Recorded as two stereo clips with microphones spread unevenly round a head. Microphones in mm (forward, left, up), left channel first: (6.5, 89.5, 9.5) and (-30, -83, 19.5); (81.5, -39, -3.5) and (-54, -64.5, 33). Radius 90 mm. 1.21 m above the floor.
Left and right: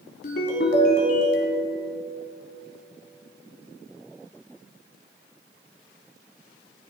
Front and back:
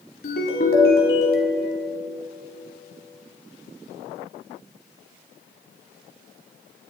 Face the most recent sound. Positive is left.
turn(degrees=40)